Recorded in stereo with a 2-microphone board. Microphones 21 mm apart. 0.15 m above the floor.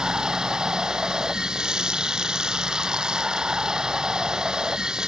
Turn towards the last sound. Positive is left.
turn(degrees=-40)  # may be behind; listen again after turning